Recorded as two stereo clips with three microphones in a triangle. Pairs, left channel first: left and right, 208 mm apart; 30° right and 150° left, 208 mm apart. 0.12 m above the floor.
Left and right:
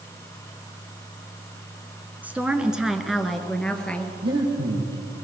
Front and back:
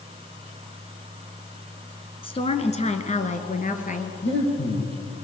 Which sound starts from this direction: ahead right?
Breathing, at 4.2 s.